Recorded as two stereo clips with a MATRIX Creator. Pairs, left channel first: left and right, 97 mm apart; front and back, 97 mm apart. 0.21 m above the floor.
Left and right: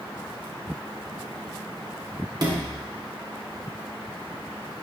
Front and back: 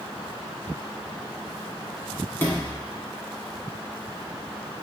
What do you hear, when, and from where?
2.4 s a sliding door: 60° right, 1.2 m